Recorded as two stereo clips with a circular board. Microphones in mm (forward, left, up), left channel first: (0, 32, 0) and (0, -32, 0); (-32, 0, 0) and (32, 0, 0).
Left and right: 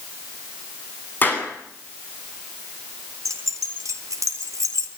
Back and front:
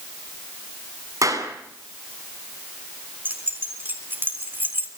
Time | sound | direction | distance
1.2 | a clap | 30° left | 8.5 m
3.2 | keys jangling | 60° right | 3.5 m